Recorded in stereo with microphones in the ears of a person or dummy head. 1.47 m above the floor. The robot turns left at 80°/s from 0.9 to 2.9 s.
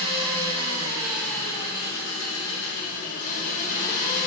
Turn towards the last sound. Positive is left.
turn(degrees=45)